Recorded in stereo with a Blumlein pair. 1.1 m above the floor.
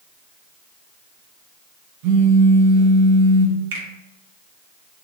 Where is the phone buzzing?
45° right, 0.7 m.